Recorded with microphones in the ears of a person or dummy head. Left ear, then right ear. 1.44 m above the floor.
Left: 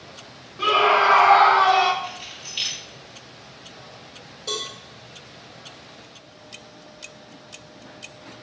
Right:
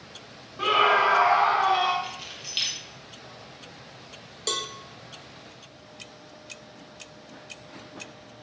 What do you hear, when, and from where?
0.6 s a scream: 10° right (ahead or behind), 0.6 m; by 1.9 s 55° left (ahead or behind), 0.7 m
2.0 s keys jangling: 70° right (ahead or behind), 1.3 m
4.5 s a cowbell: 50° right (ahead or behind), 0.6 m